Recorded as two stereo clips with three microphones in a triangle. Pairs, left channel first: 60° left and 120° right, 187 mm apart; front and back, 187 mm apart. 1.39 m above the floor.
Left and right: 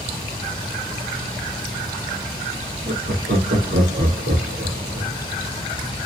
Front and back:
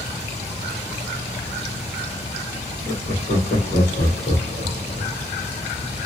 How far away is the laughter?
About 1.4 m.